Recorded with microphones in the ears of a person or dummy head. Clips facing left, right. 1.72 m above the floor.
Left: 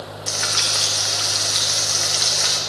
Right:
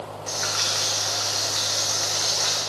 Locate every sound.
0.3 s frying: 40° left (ahead or behind), 0.5 m